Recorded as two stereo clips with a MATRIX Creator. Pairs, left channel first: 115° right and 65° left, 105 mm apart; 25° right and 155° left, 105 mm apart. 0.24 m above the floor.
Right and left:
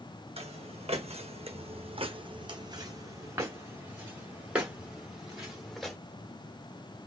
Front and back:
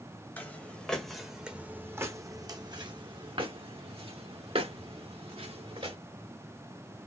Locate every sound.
0.4 s footsteps: 50° left, 1.2 m; by 6.0 s 155° left, 2.5 m